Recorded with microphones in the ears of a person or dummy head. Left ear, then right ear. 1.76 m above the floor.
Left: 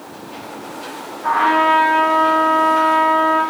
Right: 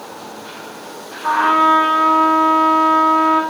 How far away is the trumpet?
About 2 m.